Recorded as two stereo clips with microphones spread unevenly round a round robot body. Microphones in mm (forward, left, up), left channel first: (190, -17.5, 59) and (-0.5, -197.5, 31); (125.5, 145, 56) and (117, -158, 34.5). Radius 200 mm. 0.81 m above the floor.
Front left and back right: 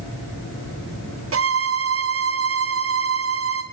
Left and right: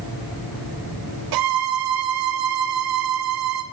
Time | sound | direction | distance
1.3 | a violin | 100° right | 2 m